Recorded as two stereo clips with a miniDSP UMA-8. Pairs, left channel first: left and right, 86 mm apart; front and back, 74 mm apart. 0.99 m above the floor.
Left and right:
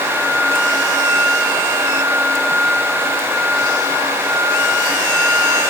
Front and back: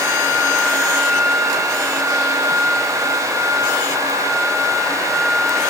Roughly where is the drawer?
No drawer in this recording.